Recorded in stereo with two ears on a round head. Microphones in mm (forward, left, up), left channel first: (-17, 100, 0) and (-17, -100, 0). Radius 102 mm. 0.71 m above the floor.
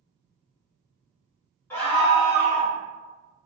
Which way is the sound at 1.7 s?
10° left (ahead or behind).